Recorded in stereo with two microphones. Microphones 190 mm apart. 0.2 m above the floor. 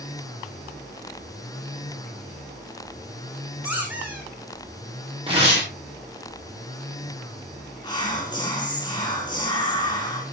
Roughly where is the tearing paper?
Right.